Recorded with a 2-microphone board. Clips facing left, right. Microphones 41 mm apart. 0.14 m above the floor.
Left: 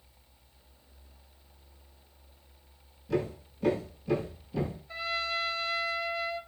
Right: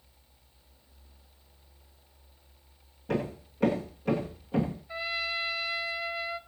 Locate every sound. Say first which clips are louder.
3.1 s hammering: even; 65° right (ahead or behind), 10 m
4.9 s a trumpet: left 3 dB; 10° right (ahead or behind), 1.5 m